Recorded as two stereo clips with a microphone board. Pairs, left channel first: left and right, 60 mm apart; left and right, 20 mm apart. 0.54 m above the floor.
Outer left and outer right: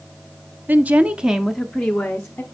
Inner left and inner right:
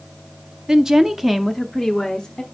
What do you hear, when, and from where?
0.7 s a woman speaking: 30° right (ahead or behind), 0.8 m; by 2.4 s 20° left (ahead or behind), 1.0 m